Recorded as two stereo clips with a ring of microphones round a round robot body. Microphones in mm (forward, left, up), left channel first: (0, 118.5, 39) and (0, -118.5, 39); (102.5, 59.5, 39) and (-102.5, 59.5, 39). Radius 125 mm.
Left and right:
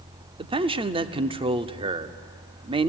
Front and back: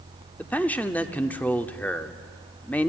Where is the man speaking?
70° right, 0.8 m.